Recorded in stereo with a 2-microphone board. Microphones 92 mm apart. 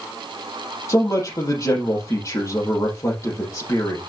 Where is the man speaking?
35° left (ahead or behind), 5.5 m.